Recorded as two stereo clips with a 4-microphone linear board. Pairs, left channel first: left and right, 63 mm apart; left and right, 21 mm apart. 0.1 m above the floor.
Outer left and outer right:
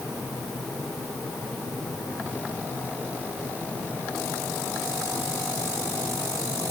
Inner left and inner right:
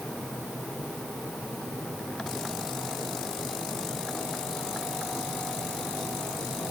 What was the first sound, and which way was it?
Only background noise.